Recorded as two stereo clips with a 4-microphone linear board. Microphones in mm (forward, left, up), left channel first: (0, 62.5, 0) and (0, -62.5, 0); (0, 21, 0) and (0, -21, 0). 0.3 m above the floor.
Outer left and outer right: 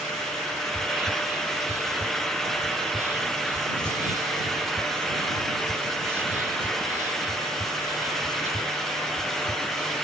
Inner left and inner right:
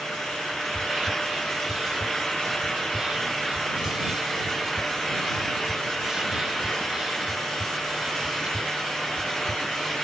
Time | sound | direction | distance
0.7 | whispering | 20° right (ahead or behind) | ?